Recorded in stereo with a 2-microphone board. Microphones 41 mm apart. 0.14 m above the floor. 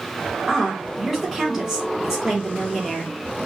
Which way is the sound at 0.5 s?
10° right (ahead or behind).